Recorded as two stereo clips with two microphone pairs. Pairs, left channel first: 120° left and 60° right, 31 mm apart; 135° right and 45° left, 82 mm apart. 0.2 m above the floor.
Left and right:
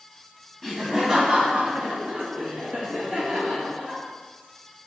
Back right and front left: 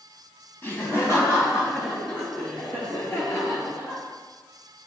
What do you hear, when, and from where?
0.6 s laughter: 160° right, 1.8 m; by 4.0 s 85° right, 5.5 m